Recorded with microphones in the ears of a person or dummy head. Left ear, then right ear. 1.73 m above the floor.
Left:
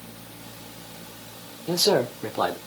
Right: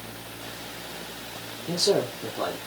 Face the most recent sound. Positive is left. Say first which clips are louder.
# left 2 dB
turn(degrees=45)  # may be behind; listen again after turning